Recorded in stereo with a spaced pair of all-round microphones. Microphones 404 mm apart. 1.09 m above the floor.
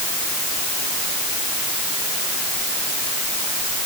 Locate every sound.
Only background noise.